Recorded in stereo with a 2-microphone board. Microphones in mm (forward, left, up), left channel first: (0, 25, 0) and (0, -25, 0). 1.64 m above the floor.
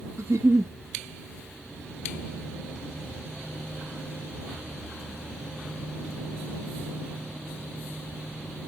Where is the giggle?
65° right (ahead or behind).